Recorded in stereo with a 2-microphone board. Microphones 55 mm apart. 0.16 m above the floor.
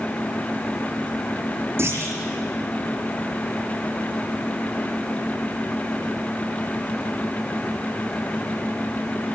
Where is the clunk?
50° right (ahead or behind), 6 m.